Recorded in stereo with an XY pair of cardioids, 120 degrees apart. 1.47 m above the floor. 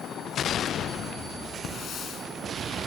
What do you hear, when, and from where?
1.6 s a hiss: 55° left, 5 m